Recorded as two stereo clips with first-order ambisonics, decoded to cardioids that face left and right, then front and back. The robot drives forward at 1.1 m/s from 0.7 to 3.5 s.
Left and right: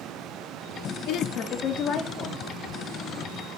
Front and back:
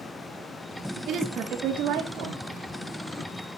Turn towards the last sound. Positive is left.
turn(degrees=160)